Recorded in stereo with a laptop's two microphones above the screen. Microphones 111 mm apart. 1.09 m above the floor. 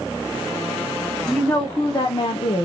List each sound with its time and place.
1.3 s a woman speaking: 5° left (ahead or behind), 1.0 m; by 2.6 s 60° left (ahead or behind), 0.8 m